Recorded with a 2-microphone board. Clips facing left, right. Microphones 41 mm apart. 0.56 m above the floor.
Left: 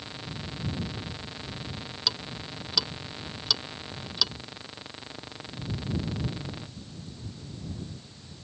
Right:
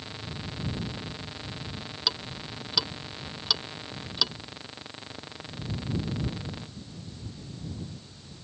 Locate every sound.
2.1 s ticking: 10° right (ahead or behind)